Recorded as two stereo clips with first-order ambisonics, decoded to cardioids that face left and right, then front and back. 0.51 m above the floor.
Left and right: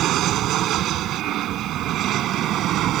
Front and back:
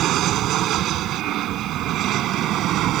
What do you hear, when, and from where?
0.0 s an aircraft: 135° right